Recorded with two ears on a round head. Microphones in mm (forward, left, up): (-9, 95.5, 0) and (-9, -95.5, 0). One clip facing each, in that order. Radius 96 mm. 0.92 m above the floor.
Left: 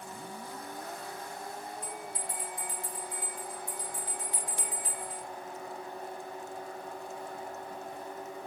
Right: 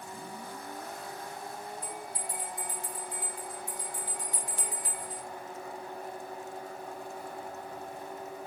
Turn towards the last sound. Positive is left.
turn(degrees=25)  # may be behind; listen again after turning